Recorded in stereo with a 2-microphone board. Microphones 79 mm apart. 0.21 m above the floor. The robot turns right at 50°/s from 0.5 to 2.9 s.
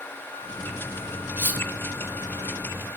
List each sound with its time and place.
1.4 s cutlery clinking: 25° right (ahead or behind), 0.7 m; by 1.6 s 20° right (ahead or behind), 0.7 m